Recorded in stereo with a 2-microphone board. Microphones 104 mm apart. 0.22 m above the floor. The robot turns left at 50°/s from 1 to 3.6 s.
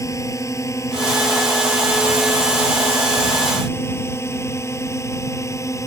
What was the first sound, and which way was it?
A drone, 30° left (ahead or behind).